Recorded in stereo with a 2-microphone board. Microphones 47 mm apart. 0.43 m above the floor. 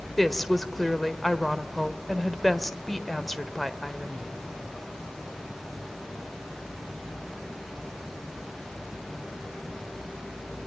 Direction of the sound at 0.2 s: 5° left (ahead or behind).